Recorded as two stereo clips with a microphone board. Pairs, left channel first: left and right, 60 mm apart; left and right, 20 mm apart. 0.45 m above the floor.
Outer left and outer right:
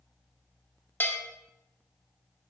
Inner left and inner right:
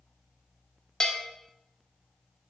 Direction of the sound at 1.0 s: 30° left (ahead or behind).